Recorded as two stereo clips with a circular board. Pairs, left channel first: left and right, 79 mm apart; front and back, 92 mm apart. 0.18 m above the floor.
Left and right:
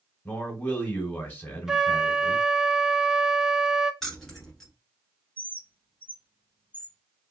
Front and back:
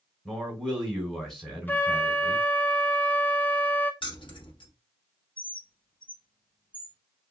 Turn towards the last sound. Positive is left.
turn(degrees=-20)